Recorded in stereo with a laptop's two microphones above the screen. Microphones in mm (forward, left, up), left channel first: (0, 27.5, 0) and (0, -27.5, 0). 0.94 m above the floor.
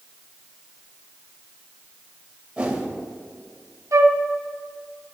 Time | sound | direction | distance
2.6 | a whoosh | 20° right (ahead or behind) | 1.5 m
3.9 | a flute | 70° right (ahead or behind) | 0.9 m